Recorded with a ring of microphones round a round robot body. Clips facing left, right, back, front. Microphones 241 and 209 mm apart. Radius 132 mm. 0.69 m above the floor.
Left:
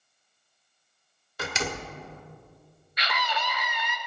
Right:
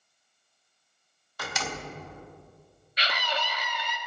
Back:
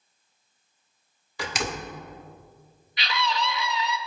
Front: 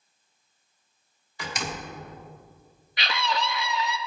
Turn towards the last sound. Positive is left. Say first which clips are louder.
# even, even
turn(degrees=-35)